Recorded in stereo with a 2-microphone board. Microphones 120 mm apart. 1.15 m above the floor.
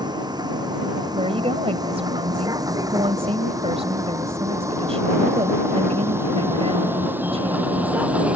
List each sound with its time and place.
0.0 s a vehicle: 35° right (ahead or behind); by 8.4 s 10° right (ahead or behind)
1.1 s a woman speaking: 55° right (ahead or behind)